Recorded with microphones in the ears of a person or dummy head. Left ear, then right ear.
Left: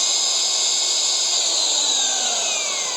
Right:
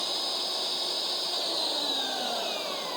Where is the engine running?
70° left (ahead or behind).